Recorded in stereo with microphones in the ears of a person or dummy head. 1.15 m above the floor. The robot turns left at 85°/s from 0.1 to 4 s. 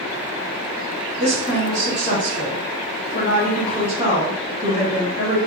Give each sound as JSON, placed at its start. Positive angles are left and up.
{"t": 1.2, "sound": "a woman speaking", "azimuth_deg": -140, "distance_m": 1.8}